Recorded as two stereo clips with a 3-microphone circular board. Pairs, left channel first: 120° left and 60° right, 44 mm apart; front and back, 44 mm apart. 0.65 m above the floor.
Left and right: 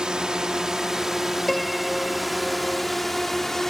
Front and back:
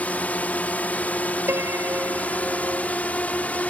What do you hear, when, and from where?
0.0 s a drone: straight ahead; by 3.7 s 40° left
1.5 s a piano: 155° right